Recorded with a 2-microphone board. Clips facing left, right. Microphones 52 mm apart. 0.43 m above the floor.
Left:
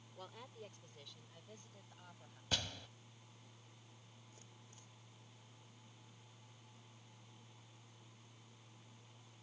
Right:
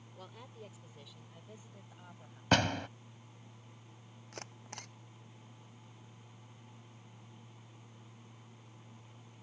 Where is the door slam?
65° right (ahead or behind).